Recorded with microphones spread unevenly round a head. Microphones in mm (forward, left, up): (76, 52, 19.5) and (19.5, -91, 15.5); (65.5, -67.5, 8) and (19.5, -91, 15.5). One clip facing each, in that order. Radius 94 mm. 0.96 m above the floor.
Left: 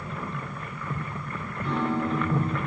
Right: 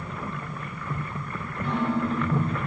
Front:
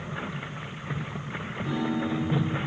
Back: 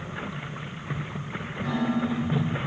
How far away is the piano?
About 6 m.